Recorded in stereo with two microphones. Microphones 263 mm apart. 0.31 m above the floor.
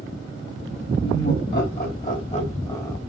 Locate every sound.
1.0 s laughter: 50° left (ahead or behind), 1.8 m; by 3.0 s 5° left (ahead or behind), 1.2 m